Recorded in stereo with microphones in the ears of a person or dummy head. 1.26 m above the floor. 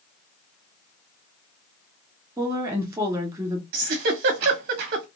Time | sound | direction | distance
2.4 | a woman speaking | 15° right (ahead or behind) | 2 m
3.7 | a giggle | 50° right (ahead or behind) | 0.9 m